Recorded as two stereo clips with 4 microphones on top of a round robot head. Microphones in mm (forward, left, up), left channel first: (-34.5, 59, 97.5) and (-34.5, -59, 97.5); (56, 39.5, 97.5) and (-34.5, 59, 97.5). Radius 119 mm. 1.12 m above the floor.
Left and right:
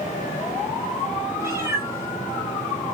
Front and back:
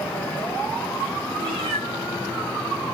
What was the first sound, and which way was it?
A cat meowing, 155° right.